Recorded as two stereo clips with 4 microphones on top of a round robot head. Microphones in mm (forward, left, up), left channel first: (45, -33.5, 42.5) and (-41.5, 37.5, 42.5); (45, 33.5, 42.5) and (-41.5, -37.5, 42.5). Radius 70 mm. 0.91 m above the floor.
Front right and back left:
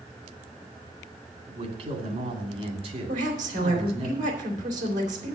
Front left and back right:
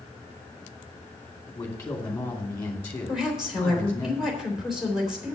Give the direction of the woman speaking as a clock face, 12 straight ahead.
8 o'clock.